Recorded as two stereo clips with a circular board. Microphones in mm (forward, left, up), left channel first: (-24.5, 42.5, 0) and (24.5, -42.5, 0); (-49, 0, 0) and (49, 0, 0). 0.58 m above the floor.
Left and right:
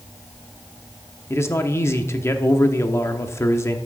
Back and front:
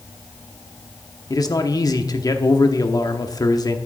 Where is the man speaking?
165° left, 0.9 m.